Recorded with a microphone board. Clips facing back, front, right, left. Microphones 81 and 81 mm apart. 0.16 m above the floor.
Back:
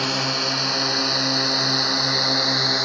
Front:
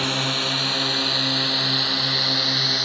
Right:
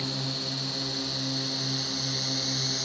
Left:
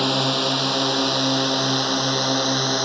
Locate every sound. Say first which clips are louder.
0.0 s a drone: back 1 dB, left 13 dB; 95° left; by 2.9 s 110° left